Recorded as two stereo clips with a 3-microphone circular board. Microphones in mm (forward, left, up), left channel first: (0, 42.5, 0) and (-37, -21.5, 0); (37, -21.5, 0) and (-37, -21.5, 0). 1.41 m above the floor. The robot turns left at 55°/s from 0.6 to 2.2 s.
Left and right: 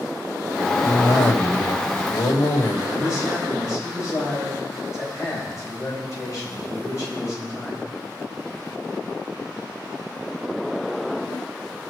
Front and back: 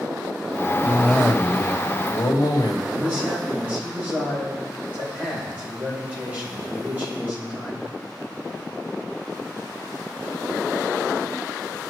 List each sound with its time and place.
0.8 s a cough: 115° left, 2 m; by 2.8 s 35° left, 2 m
2.9 s a man speaking: 110° left, 8.5 m